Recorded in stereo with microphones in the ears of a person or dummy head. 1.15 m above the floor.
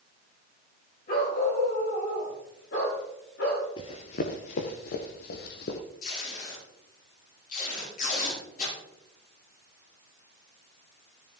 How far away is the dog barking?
About 8 m.